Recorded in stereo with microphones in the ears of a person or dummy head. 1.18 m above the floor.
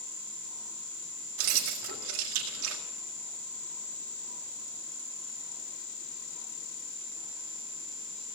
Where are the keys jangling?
80° right, 1.9 m.